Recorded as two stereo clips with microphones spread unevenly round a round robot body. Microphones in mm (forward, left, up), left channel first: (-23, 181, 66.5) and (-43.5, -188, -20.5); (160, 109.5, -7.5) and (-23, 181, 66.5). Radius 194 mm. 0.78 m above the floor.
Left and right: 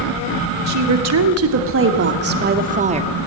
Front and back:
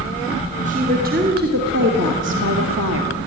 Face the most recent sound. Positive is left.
turn(degrees=-160)